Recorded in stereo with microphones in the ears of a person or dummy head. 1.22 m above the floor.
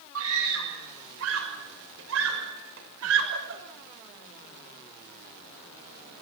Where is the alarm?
I don't hear an alarm.